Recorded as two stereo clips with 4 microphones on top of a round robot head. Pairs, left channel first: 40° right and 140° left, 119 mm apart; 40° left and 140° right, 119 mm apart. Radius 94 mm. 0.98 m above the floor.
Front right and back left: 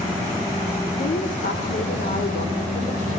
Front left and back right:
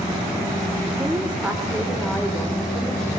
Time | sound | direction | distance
1.0 | a woman speaking | 65° right | 3 m